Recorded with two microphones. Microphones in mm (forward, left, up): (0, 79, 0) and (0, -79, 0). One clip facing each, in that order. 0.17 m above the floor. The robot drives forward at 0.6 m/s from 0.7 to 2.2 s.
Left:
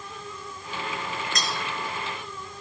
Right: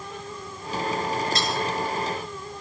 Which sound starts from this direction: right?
Cutlery clinking, at 1.4 s.